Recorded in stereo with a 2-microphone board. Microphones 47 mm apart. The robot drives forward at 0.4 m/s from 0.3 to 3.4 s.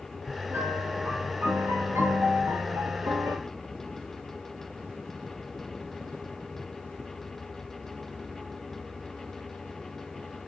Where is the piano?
55° right (ahead or behind), 6.5 m; by 3.4 s 65° right (ahead or behind), 6 m.